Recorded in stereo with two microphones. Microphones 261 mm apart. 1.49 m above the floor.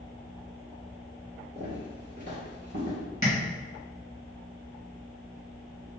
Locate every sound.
1.6 s footsteps: 25° right (ahead or behind), 1.8 m; by 3.0 s 30° right (ahead or behind), 1.8 m
3.2 s tapping: 30° left (ahead or behind), 1.4 m